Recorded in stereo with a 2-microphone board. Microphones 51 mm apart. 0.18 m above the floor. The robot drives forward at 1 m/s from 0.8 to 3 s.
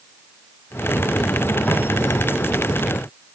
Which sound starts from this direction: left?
Footsteps, at 1.7 s.